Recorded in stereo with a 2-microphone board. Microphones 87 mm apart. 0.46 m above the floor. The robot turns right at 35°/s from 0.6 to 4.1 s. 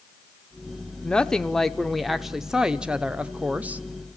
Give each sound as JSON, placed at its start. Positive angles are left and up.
{"t": 1.0, "sound": "a woman speaking", "side_deg": 10, "distance_m": 0.8}